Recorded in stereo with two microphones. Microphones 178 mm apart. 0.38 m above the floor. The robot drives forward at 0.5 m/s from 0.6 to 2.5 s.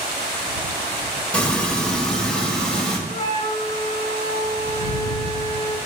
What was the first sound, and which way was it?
Frying, 5° left (ahead or behind).